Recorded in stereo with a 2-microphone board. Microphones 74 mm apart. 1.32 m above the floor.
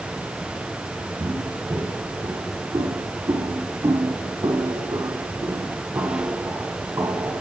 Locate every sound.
1.2 s footsteps: 70° right (ahead or behind), 3.5 m; by 7.4 s 30° right (ahead or behind), 3.5 m